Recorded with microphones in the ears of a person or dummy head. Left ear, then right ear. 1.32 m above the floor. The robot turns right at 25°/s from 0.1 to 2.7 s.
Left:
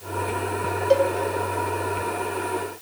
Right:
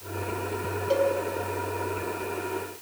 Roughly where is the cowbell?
Centre.